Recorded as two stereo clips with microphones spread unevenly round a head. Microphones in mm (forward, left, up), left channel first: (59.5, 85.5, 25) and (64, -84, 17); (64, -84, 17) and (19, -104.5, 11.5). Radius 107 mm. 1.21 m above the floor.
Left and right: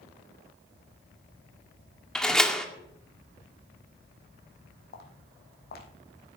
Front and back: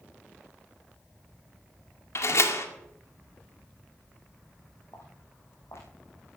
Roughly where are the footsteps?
Left.